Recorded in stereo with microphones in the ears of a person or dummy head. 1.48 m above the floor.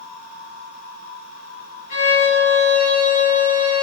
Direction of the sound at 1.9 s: 30° left (ahead or behind).